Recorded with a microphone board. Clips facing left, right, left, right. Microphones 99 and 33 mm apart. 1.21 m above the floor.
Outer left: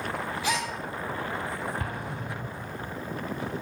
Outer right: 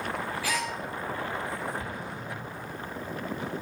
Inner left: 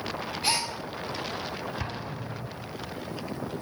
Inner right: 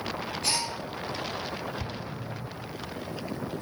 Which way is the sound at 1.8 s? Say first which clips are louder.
Outer left 2 dB, inner left 1 dB; 50° left (ahead or behind).